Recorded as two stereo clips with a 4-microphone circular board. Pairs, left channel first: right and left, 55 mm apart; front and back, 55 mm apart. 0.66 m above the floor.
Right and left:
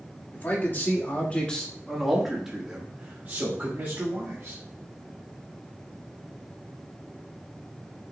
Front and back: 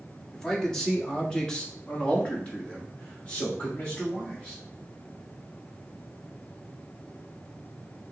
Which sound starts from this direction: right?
A man speaking, at 0.3 s.